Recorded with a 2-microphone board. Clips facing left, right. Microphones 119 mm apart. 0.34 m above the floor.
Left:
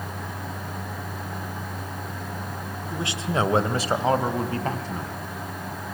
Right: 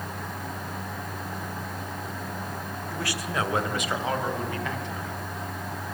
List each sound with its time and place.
2.9 s a man speaking: 20° left (ahead or behind), 1.2 m; by 5.1 s 40° left (ahead or behind), 3 m